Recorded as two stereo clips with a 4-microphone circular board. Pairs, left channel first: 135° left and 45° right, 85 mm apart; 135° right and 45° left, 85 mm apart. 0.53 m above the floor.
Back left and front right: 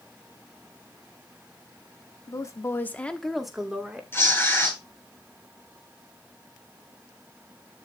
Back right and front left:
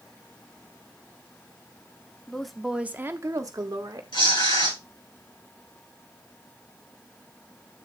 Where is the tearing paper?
160° right, 7 m.